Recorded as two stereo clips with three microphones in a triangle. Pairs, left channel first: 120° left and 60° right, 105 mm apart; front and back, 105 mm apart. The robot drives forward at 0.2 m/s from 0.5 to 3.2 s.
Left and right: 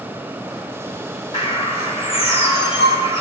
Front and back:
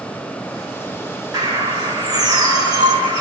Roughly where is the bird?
Behind left.